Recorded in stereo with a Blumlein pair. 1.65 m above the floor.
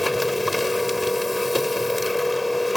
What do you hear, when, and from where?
0.0 s a machine running: 5° left